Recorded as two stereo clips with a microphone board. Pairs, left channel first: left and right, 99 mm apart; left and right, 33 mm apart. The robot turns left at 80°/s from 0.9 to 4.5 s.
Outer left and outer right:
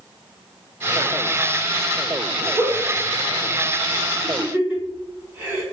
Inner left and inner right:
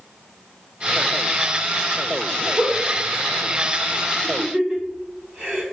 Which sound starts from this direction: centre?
A giggle, at 2.5 s.